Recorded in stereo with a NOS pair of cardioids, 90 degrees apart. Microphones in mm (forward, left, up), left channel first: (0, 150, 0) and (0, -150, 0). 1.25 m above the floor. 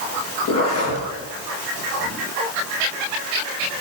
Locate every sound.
0.5 s a zipper: 55° left, 7 m